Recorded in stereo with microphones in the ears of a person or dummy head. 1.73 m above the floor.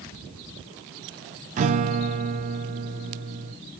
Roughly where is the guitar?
Right.